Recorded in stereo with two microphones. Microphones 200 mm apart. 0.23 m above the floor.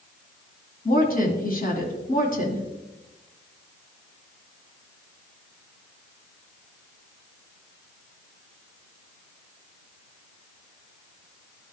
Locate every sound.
0.8 s a woman speaking: 45° left (ahead or behind), 2.0 m